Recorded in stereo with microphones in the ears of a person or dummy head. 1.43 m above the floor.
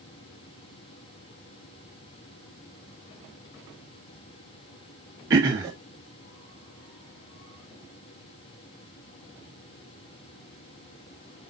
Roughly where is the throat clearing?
Right.